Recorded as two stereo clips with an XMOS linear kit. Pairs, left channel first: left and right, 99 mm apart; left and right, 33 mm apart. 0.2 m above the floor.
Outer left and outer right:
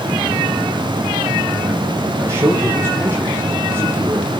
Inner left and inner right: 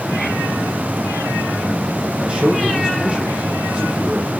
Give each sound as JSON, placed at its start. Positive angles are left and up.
{"t": 2.2, "sound": "a man speaking", "side_deg": -25, "distance_m": 7.5}